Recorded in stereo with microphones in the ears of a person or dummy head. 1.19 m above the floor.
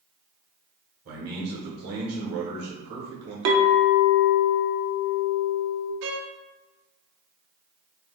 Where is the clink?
60° right (ahead or behind), 0.7 m.